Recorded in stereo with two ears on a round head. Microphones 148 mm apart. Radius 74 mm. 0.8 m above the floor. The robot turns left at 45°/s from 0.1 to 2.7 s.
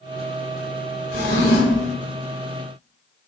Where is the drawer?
90° left, 1.1 m; by 1.9 s 55° left, 1.1 m.